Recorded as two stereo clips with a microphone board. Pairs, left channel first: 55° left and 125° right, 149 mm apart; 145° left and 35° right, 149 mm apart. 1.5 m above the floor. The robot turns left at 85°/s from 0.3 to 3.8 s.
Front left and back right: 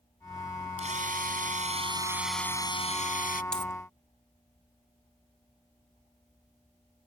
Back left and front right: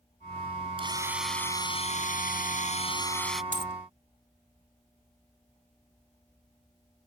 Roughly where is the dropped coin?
Behind left.